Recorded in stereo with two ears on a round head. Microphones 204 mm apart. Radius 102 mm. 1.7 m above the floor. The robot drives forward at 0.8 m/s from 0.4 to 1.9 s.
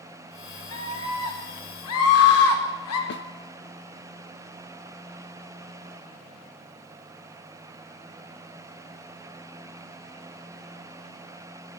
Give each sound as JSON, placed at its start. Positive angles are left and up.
{"t": 0.7, "sound": "a scream", "side_deg": 70, "distance_m": 5.0}
{"t": 3.1, "sound": "a snare drum", "side_deg": 55, "distance_m": 0.8}